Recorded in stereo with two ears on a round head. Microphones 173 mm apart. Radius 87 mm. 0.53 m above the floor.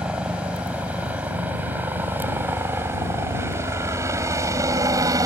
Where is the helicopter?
5° right (ahead or behind); by 5.3 s 20° right (ahead or behind).